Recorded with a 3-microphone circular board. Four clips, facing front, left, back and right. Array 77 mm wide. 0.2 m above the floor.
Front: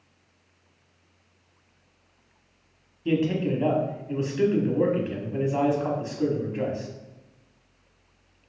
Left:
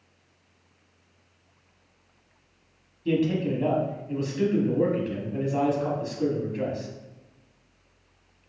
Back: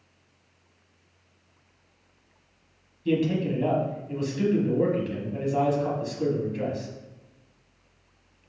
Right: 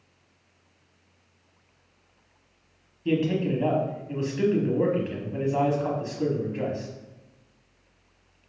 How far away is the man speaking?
About 1.2 m.